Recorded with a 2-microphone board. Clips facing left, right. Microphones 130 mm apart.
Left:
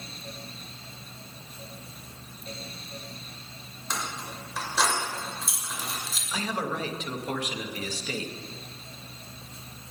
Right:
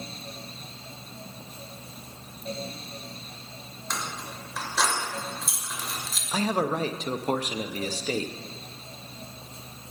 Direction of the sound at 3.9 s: 5° left (ahead or behind).